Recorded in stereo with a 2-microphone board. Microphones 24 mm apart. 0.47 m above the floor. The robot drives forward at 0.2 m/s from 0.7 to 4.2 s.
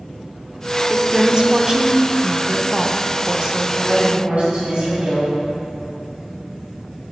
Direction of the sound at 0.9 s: 30° right (ahead or behind).